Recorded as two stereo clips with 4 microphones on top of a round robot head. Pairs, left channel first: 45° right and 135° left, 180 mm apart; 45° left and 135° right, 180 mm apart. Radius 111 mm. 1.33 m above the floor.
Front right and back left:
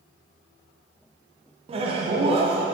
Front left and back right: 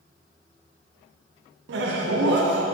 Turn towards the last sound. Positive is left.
turn(degrees=-165)